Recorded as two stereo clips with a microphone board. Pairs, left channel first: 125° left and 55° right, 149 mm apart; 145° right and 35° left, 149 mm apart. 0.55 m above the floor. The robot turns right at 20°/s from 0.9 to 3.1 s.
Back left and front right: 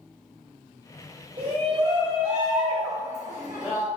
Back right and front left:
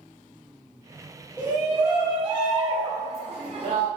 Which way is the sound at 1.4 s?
25° right.